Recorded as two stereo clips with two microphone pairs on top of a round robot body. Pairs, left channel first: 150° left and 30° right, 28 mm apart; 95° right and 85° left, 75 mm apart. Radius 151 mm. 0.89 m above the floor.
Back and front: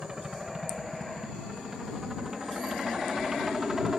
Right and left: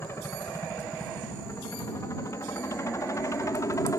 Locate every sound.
0.0 s a helicopter: 95° right; by 4.0 s 110° right